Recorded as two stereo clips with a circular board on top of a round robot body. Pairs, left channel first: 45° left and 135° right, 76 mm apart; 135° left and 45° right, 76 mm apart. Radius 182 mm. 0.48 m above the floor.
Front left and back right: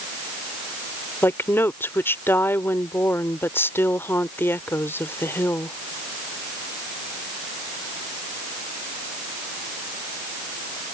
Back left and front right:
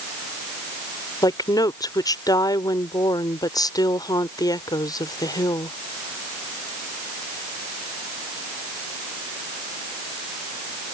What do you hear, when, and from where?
1.2 s a woman speaking: 105° left